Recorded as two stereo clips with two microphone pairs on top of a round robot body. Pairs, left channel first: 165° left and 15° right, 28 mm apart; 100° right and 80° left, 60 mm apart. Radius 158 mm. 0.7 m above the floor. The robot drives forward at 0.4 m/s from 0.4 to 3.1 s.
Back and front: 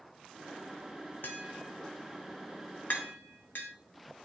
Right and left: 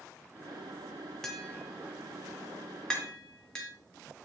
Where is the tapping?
170° left, 0.6 m; by 3.7 s 175° left, 1.3 m.